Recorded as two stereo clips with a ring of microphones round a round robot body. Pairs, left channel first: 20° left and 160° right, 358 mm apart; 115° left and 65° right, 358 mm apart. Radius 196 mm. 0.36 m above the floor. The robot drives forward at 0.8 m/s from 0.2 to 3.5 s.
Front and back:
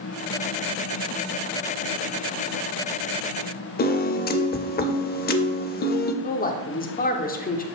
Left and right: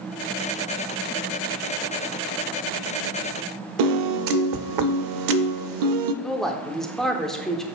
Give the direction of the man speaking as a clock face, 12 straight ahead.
11 o'clock.